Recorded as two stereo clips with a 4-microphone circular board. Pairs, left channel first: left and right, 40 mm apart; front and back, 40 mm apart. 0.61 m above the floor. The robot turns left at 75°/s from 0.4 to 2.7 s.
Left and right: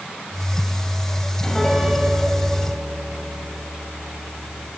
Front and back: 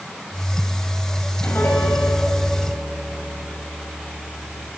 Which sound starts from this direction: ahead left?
A piano, at 1.4 s.